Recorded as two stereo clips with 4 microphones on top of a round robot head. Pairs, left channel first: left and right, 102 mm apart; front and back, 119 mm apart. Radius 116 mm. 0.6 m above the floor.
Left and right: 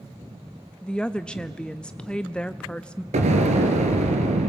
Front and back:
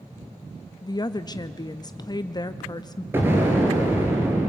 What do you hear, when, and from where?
0.8 s a woman speaking: 15° left, 0.6 m
3.1 s an explosion: 105° right, 2 m